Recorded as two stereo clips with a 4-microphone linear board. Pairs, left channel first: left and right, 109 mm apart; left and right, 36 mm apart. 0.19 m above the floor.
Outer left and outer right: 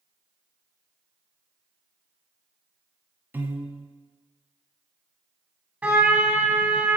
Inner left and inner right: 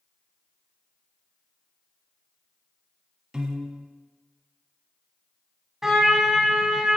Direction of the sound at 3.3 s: 20° right (ahead or behind).